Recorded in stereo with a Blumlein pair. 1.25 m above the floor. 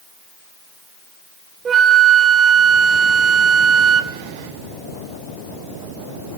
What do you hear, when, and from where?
1.6 s a flute: 20° right, 1.2 m